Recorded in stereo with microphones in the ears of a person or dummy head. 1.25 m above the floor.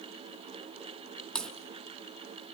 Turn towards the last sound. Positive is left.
turn(degrees=5)  # may be behind; listen again after turning